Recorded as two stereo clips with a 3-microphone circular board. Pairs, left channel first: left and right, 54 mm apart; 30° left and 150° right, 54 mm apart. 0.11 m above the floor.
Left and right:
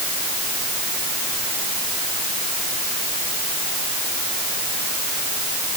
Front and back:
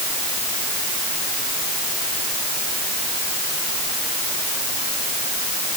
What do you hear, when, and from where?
Only background noise.